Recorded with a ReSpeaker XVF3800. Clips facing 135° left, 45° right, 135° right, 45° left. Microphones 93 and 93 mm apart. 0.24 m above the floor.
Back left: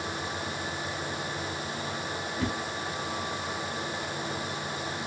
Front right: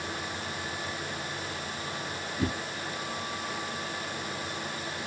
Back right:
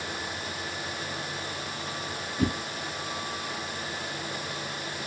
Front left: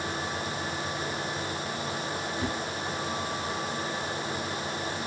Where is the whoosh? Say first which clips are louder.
Front right 1 dB, back right 7 dB; 110° right, 1.8 m.